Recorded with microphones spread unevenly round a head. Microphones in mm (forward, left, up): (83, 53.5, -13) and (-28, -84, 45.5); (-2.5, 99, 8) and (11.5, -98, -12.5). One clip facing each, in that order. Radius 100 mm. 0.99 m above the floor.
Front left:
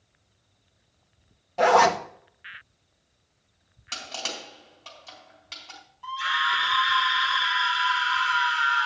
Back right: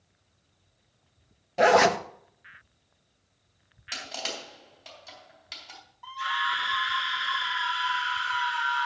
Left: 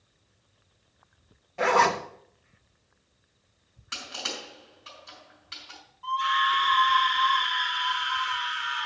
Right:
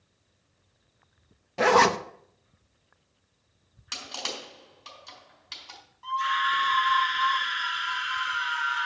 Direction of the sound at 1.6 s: 55° right.